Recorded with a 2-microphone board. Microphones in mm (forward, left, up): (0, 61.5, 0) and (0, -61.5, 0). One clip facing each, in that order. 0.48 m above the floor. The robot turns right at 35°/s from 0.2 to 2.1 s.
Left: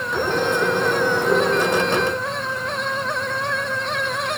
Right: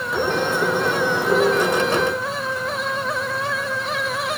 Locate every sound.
Only background noise.